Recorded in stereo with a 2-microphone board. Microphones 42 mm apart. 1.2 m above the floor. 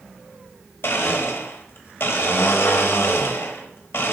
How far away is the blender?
About 0.9 m.